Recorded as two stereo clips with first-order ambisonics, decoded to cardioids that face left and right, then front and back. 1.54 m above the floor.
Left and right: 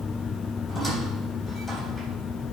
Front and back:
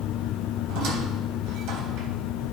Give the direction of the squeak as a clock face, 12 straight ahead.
6 o'clock.